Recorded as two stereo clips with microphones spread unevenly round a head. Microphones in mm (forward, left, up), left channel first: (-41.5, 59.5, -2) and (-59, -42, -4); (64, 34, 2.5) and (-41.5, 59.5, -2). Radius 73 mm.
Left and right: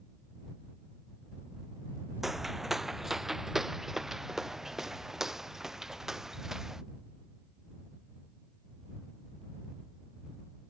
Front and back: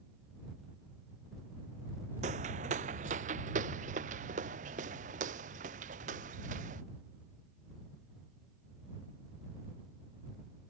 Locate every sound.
2.2 s footsteps: 170° left; by 6.8 s 175° left